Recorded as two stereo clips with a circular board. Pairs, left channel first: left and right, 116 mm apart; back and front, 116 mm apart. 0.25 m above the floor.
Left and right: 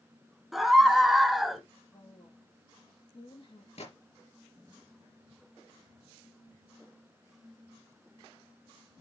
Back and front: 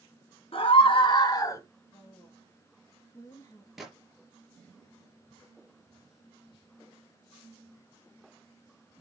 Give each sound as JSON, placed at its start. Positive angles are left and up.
{"t": 0.5, "sound": "a scream", "azimuth_deg": 180, "distance_m": 3.0}
{"t": 1.9, "sound": "a woman speaking", "azimuth_deg": 120, "distance_m": 4.0}
{"t": 3.8, "sound": "a gunshot", "azimuth_deg": 90, "distance_m": 4.5}